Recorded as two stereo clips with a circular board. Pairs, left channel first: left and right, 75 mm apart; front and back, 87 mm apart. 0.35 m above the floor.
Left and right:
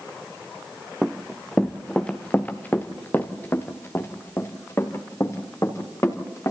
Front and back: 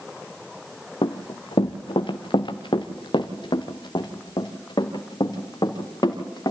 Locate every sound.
1.0 s running footsteps: 5° right, 1.1 m; by 6.5 s 40° left, 3.5 m